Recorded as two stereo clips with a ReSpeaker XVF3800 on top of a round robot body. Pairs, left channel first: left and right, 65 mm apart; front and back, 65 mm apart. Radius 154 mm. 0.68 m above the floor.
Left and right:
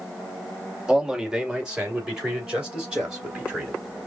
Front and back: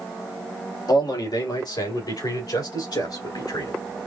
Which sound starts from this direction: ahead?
A man speaking, at 0.9 s.